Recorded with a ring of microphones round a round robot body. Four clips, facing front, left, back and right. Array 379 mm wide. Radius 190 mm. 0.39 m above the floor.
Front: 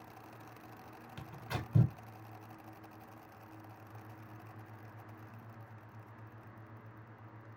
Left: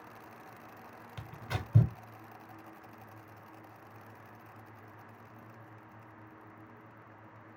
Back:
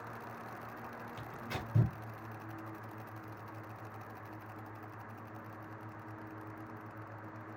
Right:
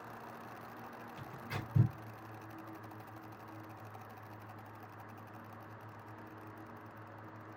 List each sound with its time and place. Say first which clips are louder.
1.2 s tearing paper: left 5 dB, front 2 dB; 85° left, 1.0 m